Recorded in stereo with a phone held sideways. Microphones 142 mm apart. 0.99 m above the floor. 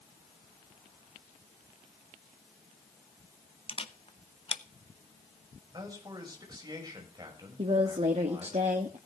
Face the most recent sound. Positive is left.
turn(degrees=-45)  # may be behind; listen again after turning